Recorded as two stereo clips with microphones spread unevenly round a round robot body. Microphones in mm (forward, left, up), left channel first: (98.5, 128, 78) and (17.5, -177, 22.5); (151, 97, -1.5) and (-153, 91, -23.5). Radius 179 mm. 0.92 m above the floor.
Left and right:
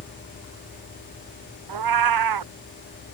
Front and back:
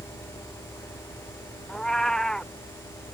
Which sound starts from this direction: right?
A cat meowing, at 1.7 s.